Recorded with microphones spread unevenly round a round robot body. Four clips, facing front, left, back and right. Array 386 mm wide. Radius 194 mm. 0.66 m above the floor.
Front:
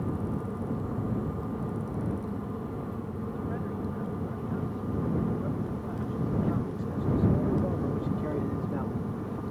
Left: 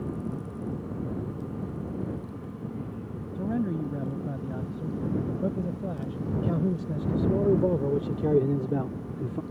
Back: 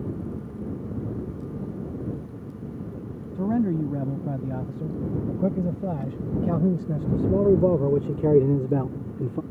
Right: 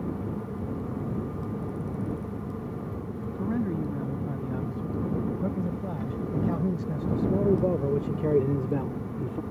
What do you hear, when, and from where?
3.4 s a man speaking: 175° left; by 9.4 s straight behind